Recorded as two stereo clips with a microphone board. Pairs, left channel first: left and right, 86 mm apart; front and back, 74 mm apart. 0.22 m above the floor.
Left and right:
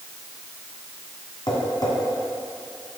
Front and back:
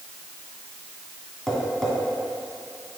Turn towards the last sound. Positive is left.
turn(degrees=85)